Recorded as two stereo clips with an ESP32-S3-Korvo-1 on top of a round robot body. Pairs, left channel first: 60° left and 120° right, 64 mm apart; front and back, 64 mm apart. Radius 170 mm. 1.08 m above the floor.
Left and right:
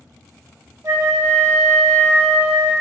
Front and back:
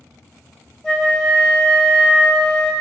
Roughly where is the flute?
Right.